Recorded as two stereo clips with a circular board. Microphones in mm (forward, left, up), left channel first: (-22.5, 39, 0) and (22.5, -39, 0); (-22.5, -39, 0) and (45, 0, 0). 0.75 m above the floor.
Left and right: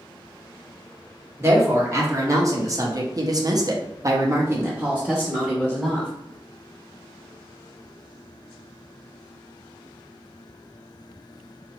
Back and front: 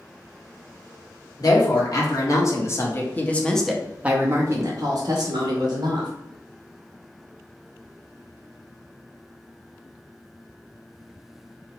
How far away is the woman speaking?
About 1.4 m.